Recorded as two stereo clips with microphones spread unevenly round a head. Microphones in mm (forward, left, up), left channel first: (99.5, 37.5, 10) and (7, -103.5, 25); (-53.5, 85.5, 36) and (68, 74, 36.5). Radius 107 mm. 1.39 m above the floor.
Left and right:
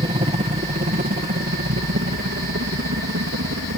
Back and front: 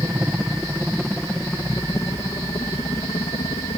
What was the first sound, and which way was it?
A helicopter, 80° right.